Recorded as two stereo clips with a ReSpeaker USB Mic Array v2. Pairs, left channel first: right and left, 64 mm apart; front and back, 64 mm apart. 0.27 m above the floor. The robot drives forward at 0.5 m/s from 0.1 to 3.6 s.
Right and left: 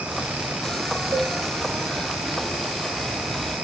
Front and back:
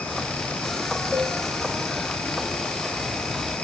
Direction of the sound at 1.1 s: 85° left.